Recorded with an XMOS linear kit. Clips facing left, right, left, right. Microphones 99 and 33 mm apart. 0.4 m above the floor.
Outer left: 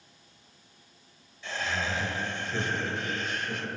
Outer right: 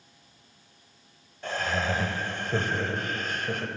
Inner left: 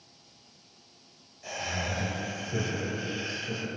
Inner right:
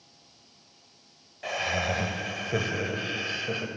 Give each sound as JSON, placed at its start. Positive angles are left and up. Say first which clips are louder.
{"t": 1.4, "sound": "laughter", "louder": "outer right 4 dB, inner right 5 dB", "side_deg": -50, "distance_m": 1.8}